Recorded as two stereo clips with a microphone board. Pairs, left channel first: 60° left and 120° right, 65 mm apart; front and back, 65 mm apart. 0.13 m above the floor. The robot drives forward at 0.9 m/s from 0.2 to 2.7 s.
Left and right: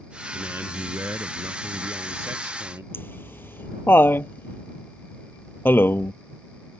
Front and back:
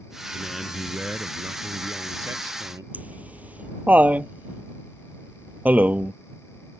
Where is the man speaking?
80° right; by 2.8 s 160° right.